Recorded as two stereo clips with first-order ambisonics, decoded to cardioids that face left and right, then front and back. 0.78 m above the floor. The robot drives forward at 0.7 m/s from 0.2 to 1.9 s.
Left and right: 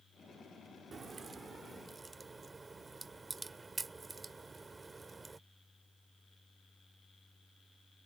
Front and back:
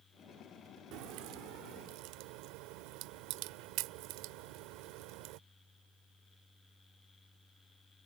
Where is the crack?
160° right; by 5.4 s 165° right.